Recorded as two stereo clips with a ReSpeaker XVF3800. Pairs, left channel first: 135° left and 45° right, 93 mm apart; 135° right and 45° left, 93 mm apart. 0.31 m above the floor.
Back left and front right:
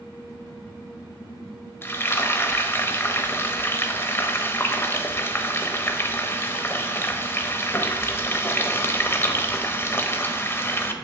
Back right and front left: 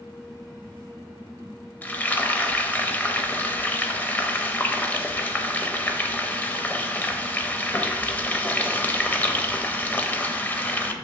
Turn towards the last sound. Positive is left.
turn(degrees=170)